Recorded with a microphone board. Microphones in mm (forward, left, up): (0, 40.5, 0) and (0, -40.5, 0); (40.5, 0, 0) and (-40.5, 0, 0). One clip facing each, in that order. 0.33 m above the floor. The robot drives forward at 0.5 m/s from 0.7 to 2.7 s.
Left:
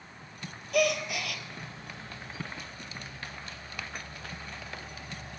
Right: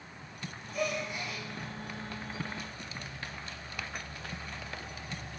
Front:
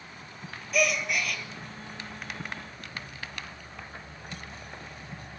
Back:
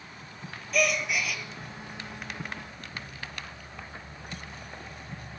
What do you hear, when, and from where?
0.7 s a gasp: 90° left, 2.5 m; by 1.4 s 95° left, 2.5 m